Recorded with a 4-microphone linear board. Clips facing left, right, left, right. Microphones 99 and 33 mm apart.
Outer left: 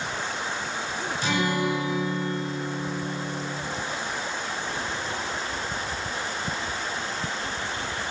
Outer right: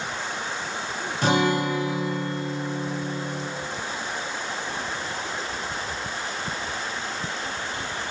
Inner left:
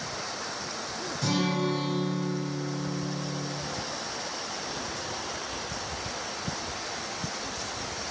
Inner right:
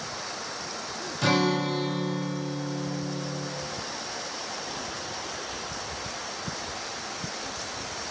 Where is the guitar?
60° right (ahead or behind), 3.5 m.